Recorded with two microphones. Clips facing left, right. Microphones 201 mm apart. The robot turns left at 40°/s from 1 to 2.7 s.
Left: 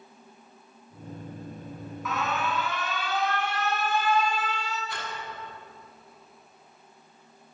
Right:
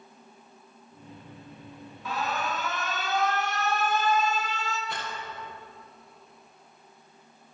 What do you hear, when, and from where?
2.0 s an alarm: 35° right (ahead or behind), 1.9 m; by 4.8 s 50° right (ahead or behind), 1.9 m
4.9 s a rattle: 70° right (ahead or behind), 7 m